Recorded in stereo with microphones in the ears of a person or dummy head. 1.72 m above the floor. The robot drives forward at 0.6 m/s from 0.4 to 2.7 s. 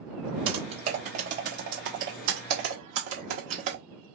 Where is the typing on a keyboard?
35° right (ahead or behind), 1.4 m; by 3.8 s 50° right (ahead or behind), 1.1 m.